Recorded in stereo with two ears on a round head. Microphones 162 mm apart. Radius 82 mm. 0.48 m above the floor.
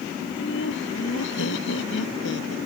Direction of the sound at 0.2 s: 70° left (ahead or behind).